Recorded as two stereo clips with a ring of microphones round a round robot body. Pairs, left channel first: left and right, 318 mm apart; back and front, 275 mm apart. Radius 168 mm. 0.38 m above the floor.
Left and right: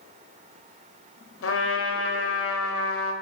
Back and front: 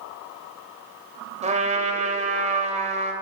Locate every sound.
1.4 s a trumpet: 60° left, 2 m